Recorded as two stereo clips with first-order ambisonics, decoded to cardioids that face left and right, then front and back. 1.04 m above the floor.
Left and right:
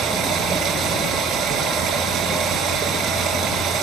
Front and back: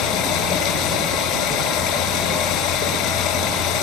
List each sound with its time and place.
0.0 s running water: 35° right, 7.5 m